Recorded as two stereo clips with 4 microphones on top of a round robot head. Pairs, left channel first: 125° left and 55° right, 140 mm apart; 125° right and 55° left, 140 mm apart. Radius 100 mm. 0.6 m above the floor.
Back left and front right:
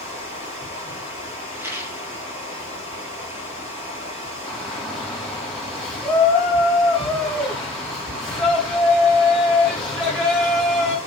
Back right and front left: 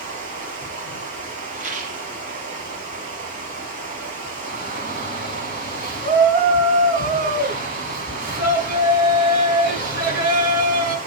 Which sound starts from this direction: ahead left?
A shout, at 4.5 s.